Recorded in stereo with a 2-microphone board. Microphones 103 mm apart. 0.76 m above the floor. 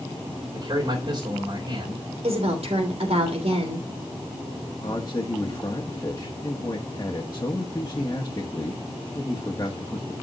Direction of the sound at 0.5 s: 40° right (ahead or behind).